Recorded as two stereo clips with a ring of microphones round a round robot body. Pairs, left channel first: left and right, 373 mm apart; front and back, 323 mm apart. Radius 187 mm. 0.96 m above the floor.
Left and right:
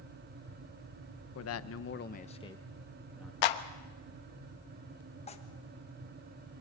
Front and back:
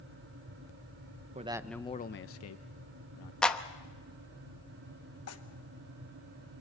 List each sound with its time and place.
1.4 s a man speaking: 120° left, 0.9 m; by 3.3 s straight ahead, 1.6 m
3.4 s a clap: 85° left, 1.1 m
5.3 s tearing paper: 20° left, 1.2 m